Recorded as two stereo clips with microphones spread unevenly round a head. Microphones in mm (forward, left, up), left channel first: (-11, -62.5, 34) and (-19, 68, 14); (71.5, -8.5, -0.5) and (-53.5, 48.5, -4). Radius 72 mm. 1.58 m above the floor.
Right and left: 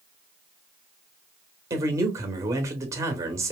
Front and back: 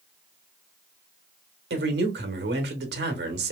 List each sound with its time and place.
1.7 s a man speaking: 165° left, 1.1 m